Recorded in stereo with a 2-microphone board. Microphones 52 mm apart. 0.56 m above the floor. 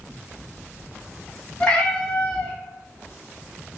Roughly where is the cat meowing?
Left.